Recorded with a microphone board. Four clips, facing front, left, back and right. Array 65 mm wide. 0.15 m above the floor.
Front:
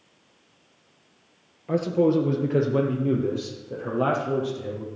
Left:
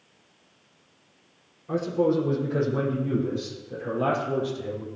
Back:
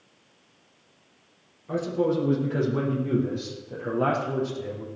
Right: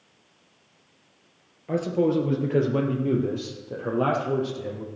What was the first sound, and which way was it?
A man speaking, 45° right.